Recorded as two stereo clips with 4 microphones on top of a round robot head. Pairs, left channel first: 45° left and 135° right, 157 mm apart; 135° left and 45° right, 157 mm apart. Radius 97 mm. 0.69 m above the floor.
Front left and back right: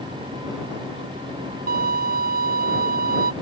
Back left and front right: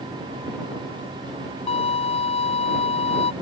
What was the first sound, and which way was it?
A violin, 170° right.